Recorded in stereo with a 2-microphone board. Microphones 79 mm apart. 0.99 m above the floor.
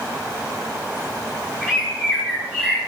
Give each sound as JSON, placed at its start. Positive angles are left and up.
{"t": 1.6, "sound": "a bird", "side_deg": -10, "distance_m": 9.5}